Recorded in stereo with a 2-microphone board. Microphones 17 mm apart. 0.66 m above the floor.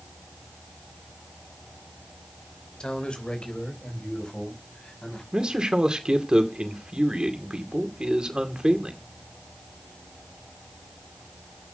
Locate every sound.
2.8 s a man speaking: 65° left (ahead or behind), 3 m; by 5.2 s 75° left (ahead or behind), 6 m
5.3 s a man speaking: 60° right (ahead or behind), 2 m